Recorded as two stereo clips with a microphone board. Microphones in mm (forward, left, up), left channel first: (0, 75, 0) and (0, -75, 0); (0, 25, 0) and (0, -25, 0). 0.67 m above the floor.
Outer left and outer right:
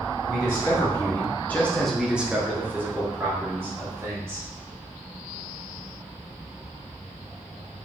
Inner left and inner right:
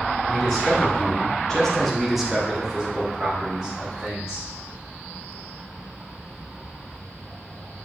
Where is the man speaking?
20° left (ahead or behind), 1.9 m; by 4.5 s 15° right (ahead or behind), 3 m.